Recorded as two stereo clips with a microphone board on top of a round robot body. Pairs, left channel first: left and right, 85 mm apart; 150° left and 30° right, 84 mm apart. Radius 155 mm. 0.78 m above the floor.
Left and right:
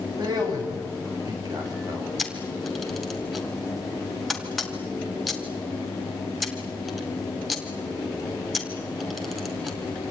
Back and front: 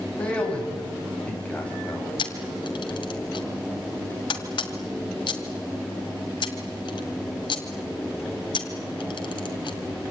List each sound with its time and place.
0.2 s a man speaking: 135° right, 6.5 m
2.2 s a camera shutter: straight behind, 1.7 m